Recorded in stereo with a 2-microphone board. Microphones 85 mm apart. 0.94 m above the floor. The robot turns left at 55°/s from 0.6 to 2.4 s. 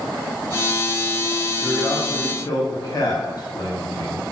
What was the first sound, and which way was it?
A man speaking, 155° left.